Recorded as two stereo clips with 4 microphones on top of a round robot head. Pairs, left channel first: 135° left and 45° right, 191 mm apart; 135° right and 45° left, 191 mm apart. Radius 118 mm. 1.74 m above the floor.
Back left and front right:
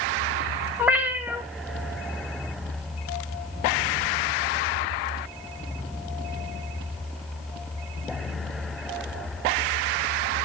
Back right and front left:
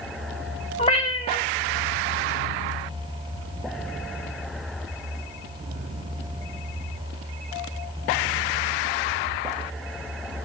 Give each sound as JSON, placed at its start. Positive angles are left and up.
{"t": 0.8, "sound": "a cat meowing", "azimuth_deg": -115, "distance_m": 1.0}